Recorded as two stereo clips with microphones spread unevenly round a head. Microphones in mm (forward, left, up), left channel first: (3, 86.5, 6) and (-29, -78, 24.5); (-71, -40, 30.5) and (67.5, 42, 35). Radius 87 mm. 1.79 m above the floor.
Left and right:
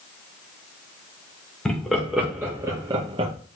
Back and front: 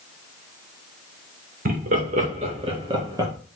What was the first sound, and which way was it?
Laughter, 10° right.